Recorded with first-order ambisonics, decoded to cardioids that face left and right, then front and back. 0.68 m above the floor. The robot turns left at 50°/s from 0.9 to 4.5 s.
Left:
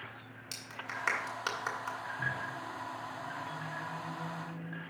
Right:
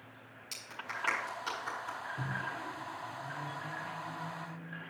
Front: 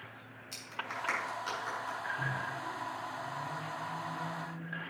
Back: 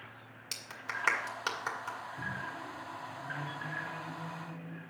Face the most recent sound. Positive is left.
turn(degrees=145)